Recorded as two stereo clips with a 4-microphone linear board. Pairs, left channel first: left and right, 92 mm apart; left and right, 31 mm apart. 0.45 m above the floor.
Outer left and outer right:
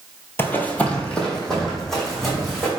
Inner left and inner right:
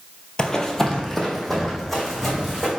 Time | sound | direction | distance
0.4 | running footsteps | 25° left (ahead or behind) | 0.5 m